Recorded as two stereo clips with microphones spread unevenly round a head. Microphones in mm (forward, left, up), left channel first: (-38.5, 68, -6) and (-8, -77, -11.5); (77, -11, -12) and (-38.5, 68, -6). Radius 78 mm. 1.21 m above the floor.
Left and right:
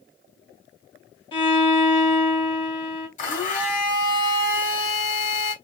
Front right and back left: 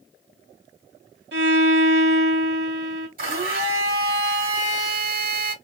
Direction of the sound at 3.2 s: 135° left.